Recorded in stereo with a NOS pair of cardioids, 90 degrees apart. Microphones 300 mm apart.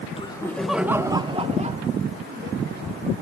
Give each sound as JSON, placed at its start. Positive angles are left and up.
{"t": 0.2, "sound": "laughter", "azimuth_deg": 20, "distance_m": 1.8}